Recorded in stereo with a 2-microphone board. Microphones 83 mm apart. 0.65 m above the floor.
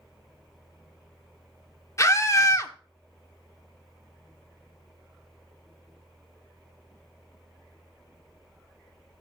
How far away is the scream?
About 1.8 m.